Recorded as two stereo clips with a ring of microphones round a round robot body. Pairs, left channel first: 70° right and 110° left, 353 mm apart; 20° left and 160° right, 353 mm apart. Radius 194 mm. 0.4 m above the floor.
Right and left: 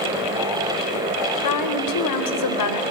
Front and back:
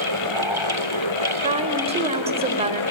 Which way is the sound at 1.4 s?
85° right.